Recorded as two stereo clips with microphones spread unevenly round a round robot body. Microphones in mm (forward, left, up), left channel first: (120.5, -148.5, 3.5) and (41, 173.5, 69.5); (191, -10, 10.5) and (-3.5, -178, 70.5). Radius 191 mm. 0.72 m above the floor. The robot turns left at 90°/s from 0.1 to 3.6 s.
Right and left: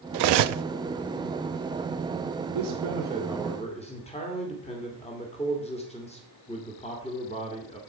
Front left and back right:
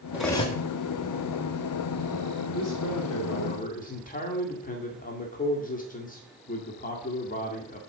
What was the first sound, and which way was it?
Cutlery clinking, 130° left.